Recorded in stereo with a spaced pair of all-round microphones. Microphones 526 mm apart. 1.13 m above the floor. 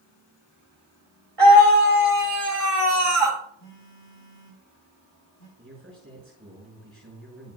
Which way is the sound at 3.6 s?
65° left (ahead or behind).